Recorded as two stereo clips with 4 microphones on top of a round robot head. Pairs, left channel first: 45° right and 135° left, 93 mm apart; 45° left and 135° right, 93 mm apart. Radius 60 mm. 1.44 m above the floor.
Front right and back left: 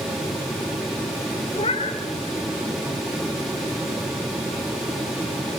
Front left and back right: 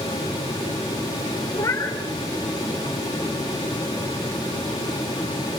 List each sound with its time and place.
1.5 s a cat meowing: 15° right, 4 m